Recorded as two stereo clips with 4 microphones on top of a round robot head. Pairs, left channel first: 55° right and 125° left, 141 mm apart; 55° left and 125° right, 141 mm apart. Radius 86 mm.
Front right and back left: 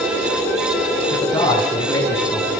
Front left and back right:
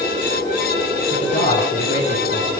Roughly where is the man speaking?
Ahead.